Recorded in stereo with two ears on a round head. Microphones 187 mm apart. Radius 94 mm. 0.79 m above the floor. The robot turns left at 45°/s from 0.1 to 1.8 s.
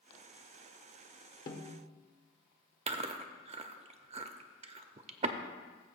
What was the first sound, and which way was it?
A snare drum, 45° left (ahead or behind).